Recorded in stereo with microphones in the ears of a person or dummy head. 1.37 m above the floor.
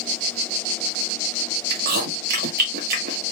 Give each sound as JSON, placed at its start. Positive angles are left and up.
{"t": 1.7, "sound": "chewing", "side_deg": -45, "distance_m": 0.8}